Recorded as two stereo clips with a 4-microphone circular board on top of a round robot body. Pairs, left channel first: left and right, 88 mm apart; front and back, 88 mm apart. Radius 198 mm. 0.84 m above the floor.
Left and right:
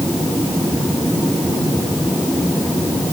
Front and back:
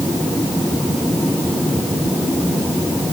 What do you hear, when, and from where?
Only background noise.